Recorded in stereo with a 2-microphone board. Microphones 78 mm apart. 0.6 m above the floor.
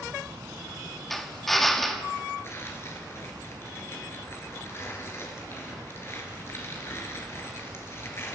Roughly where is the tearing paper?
Left.